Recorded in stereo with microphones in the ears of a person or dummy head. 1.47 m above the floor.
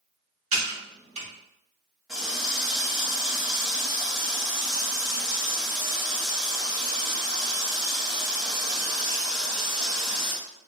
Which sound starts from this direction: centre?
A running tap, at 2.1 s.